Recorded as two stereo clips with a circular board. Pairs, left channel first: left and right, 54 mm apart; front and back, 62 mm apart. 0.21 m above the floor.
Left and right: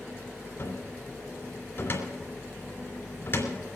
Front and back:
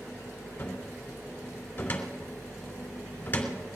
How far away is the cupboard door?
About 2.5 m.